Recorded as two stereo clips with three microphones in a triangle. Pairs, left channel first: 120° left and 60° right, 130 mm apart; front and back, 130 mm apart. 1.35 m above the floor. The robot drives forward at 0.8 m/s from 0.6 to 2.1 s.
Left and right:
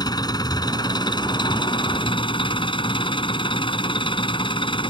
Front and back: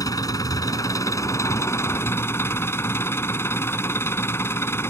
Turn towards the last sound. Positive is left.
turn(degrees=70)